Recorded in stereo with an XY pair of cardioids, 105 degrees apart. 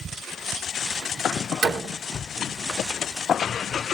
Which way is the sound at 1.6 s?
60° right.